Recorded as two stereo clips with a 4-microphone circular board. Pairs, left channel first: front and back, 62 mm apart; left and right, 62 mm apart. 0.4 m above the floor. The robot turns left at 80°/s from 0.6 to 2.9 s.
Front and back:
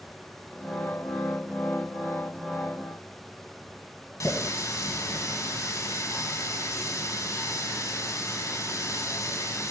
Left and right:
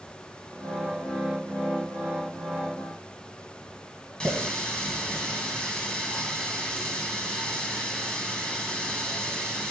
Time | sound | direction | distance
4.2 | a running tap | 15° left | 2 m